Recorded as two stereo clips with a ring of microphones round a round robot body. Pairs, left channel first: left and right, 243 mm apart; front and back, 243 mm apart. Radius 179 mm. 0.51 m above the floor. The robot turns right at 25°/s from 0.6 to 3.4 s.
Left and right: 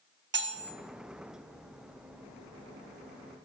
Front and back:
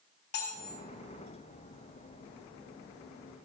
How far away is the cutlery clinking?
About 0.7 m.